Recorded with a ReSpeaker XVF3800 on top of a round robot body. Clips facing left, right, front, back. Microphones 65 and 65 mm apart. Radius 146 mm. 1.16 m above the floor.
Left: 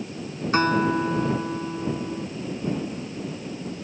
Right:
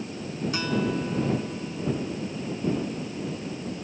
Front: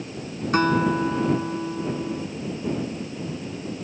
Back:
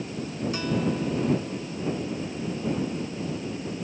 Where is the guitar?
45° left.